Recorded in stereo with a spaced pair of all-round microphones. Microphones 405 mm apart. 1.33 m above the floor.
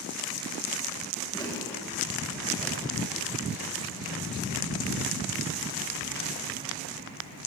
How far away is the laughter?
About 6.5 m.